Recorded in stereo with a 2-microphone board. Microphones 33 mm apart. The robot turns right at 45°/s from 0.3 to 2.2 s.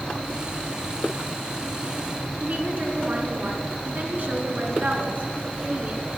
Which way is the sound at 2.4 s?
50° right (ahead or behind).